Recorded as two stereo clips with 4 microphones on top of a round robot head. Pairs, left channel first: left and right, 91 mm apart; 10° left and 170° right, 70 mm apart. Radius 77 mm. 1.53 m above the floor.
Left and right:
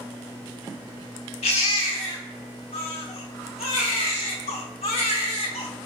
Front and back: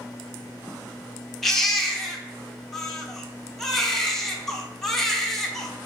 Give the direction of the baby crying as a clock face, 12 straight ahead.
9 o'clock.